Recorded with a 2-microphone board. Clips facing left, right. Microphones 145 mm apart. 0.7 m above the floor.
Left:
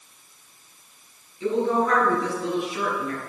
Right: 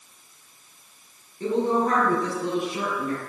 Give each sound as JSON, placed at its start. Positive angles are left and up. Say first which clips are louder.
{"t": 1.4, "sound": "a woman speaking", "louder": "even", "side_deg": -45, "distance_m": 7.5}